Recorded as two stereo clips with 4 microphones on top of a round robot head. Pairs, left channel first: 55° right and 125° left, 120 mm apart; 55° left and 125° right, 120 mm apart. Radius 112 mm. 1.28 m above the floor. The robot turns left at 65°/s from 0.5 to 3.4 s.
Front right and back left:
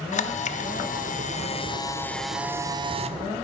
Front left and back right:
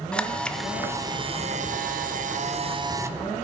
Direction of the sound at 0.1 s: 30° right.